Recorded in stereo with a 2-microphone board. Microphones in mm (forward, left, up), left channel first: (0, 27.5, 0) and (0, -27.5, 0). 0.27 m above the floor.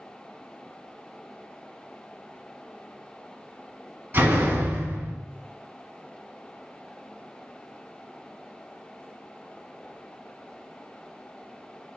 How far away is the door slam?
About 1.7 m.